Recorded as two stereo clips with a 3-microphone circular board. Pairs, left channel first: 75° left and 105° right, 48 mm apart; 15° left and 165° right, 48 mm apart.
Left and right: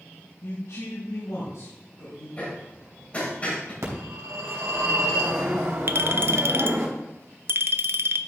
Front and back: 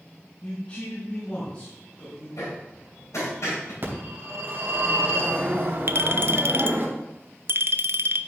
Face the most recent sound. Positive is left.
turn(degrees=-135)